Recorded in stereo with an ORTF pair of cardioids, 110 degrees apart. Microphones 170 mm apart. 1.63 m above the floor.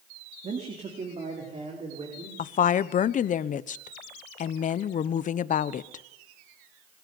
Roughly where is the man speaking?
Ahead right.